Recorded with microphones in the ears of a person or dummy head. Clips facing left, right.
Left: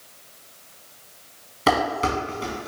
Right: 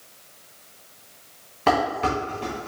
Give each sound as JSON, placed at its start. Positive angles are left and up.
{"t": 1.7, "sound": "dishes clattering", "side_deg": 10, "distance_m": 1.2}